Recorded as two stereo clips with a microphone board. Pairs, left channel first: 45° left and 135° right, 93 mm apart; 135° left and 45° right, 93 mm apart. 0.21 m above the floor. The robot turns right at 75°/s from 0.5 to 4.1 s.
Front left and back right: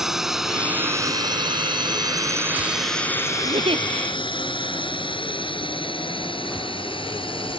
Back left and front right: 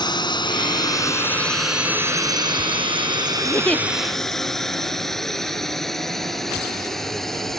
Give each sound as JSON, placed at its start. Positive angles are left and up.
{"t": 0.0, "sound": "a drone", "azimuth_deg": 140}
{"t": 3.4, "sound": "a giggle", "azimuth_deg": -165}